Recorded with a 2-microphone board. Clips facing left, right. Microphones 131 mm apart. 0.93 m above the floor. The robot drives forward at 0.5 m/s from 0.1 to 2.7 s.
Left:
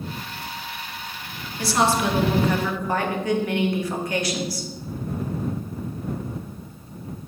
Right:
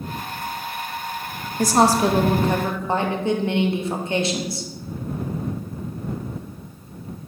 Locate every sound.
1.6 s a woman speaking: 45° right (ahead or behind), 0.5 m; by 4.7 s 25° right (ahead or behind), 0.9 m